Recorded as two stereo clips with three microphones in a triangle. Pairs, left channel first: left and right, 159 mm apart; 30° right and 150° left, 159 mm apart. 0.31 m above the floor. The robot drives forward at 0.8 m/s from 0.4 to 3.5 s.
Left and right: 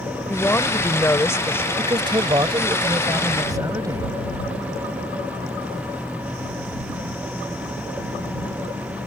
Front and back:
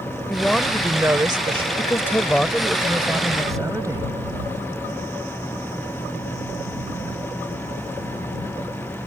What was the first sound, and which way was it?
A woman speaking, 40° left.